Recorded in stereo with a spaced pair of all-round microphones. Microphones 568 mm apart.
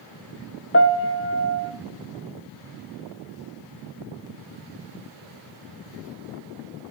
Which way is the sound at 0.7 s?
25° left (ahead or behind).